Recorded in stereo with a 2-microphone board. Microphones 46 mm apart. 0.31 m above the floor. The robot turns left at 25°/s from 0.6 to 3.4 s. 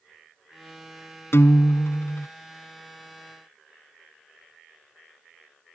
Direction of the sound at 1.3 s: 75° left (ahead or behind).